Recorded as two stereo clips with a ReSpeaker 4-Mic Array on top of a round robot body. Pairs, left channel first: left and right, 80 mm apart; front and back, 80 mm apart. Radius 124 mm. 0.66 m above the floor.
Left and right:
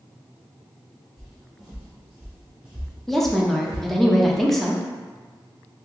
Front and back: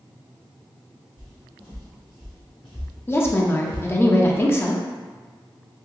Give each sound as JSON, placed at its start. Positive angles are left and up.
{"t": 1.2, "sound": "footsteps", "azimuth_deg": 170, "distance_m": 0.9}
{"t": 3.1, "sound": "a woman speaking", "azimuth_deg": 5, "distance_m": 0.7}